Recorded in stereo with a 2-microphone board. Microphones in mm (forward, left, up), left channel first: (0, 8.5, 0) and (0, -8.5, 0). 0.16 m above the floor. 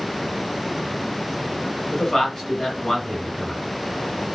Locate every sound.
1.9 s a man speaking: 30° left (ahead or behind), 1.7 m